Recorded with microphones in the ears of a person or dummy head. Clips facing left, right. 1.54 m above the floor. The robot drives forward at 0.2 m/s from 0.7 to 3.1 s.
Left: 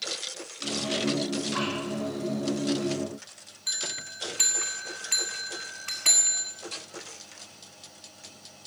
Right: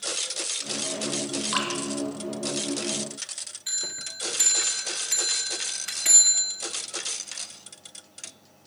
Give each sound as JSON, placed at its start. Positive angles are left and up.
{"t": 1.5, "sound": "dripping", "side_deg": -70, "distance_m": 4.0}
{"t": 3.7, "sound": "a bell", "side_deg": -10, "distance_m": 1.1}